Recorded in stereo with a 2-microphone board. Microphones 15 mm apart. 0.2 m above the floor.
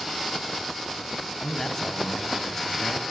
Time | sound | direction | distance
1.4 | a man speaking | 35° left (ahead or behind) | 1.3 m